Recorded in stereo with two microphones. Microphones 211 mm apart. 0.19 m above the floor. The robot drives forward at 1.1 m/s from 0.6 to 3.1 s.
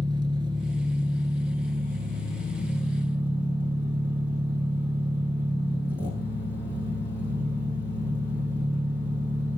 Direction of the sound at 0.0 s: 25° right (ahead or behind).